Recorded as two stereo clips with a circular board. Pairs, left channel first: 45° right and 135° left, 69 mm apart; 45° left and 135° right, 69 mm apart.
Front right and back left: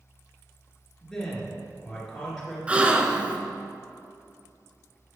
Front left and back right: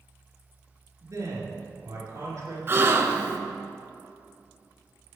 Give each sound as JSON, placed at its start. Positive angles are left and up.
{"t": 1.0, "sound": "a man speaking", "azimuth_deg": -130, "distance_m": 2.0}
{"t": 2.7, "sound": "a gasp", "azimuth_deg": -165, "distance_m": 0.5}